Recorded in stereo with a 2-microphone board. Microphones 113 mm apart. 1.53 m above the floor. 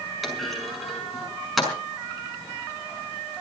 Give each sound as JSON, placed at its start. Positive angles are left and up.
{"t": 0.2, "sound": "a clunk", "side_deg": 0, "distance_m": 5.0}